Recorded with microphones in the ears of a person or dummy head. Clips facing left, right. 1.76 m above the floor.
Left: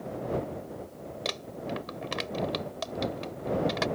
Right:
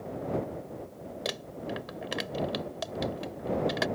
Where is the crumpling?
10° right (ahead or behind).